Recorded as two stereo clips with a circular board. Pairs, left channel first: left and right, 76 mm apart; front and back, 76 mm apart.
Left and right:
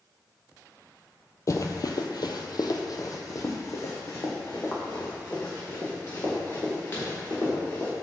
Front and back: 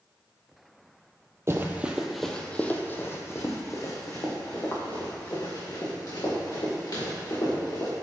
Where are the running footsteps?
130° left, 0.6 m; by 7.9 s 30° left, 3.5 m.